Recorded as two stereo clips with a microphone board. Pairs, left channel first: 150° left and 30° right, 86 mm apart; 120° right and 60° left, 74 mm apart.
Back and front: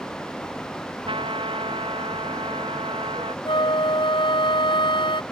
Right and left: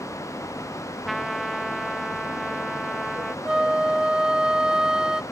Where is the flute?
140° left.